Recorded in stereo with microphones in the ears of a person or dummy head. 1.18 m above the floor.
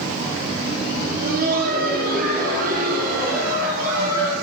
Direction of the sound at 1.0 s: 55° right (ahead or behind).